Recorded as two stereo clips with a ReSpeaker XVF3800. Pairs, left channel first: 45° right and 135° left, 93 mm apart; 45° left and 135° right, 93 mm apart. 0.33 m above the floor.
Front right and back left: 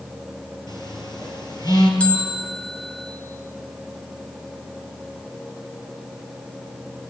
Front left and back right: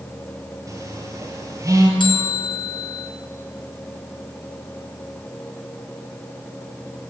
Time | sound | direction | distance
0.7 | a phone buzzing | 85° right | 5 m
2.0 | a bell | 30° left | 3 m